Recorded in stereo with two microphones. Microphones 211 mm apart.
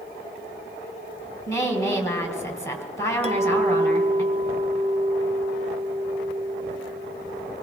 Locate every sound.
1.5 s a woman speaking: 15° left (ahead or behind), 2.0 m
3.2 s a clink: 30° right (ahead or behind), 0.7 m